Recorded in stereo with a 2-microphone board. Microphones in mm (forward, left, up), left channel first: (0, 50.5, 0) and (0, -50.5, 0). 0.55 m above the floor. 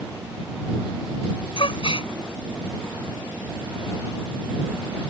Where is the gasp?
60° left (ahead or behind).